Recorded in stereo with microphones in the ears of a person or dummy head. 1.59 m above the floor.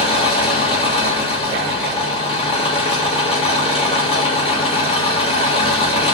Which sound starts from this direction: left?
An engine running, at 0.0 s.